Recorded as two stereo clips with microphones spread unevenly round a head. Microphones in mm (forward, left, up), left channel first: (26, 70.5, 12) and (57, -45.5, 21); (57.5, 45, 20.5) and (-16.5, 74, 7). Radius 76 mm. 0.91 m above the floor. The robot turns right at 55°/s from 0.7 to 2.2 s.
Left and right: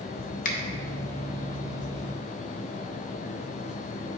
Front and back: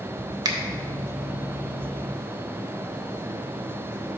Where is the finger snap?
125° left, 1.1 m.